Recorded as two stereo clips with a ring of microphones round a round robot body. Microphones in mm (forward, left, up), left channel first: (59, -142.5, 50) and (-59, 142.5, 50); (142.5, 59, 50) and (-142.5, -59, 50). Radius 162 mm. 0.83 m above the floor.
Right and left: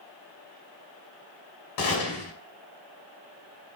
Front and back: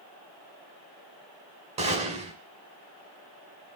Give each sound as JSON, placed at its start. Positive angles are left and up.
{"t": 1.8, "sound": "a gunshot", "azimuth_deg": -85, "distance_m": 5.5}